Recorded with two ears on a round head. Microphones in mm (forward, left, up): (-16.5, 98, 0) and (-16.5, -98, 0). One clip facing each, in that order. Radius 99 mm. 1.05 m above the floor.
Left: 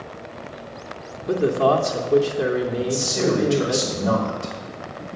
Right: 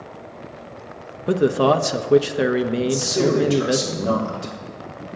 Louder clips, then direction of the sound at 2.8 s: Right 3 dB; 40° right (ahead or behind).